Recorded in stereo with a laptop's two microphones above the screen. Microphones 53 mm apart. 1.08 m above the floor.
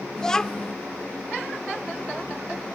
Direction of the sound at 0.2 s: 10° left (ahead or behind).